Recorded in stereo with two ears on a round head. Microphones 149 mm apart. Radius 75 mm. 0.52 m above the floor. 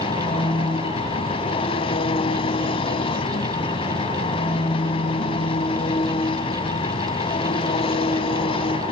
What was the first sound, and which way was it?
An engine running, 35° left (ahead or behind).